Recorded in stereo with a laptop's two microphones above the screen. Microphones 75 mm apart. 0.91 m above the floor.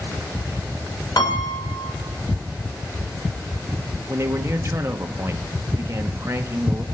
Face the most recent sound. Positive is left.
turn(degrees=-35)  # may be behind; listen again after turning